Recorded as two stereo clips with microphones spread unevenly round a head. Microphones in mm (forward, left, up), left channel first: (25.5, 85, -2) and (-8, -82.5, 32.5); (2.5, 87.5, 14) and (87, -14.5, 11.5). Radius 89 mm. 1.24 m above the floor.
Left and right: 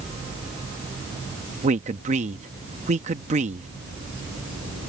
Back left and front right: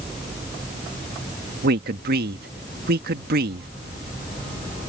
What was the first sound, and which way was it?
A man speaking, 50° right.